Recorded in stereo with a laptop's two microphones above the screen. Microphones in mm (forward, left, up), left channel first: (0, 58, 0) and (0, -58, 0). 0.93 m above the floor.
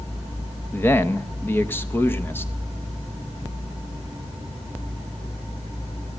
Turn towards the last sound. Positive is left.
turn(degrees=20)  # may be behind; listen again after turning